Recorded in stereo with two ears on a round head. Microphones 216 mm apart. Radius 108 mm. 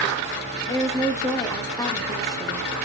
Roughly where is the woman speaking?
Centre.